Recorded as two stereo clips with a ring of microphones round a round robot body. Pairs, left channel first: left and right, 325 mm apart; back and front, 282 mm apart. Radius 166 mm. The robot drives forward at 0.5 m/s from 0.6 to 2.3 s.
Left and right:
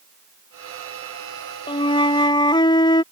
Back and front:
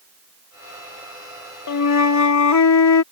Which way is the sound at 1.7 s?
165° left.